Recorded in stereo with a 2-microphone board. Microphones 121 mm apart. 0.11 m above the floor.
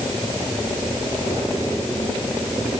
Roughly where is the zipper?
I don't hear a zipper.